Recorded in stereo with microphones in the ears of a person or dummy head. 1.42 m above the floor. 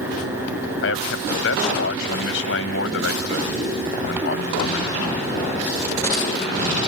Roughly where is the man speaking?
Left.